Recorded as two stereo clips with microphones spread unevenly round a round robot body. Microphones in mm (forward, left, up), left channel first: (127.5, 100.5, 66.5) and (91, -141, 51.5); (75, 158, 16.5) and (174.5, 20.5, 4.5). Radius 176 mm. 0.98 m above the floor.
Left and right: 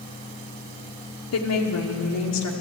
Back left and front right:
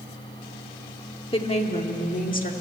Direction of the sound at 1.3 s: 70° left.